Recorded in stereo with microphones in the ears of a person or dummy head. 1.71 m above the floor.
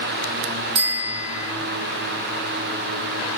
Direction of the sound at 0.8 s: 60° right (ahead or behind).